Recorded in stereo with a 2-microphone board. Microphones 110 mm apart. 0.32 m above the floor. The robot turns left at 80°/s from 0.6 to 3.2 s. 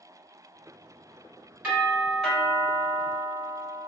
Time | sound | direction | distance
1.6 | a doorbell | 15° right (ahead or behind) | 1.5 m